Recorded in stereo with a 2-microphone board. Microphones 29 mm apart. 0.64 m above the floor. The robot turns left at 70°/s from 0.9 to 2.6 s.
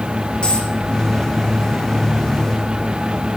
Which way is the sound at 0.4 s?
35° left (ahead or behind).